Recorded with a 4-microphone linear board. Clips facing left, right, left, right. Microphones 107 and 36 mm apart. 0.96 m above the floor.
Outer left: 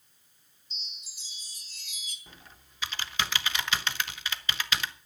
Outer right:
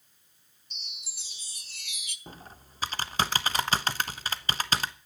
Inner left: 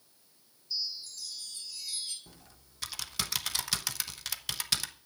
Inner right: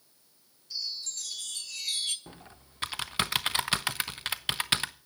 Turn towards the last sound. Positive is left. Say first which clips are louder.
# outer right 7 dB, inner right 7 dB
turn(degrees=-40)  # may be behind; listen again after turning